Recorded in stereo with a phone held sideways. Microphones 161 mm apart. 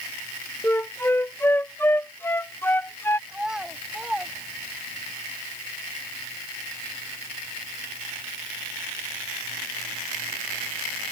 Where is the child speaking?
5° right (ahead or behind).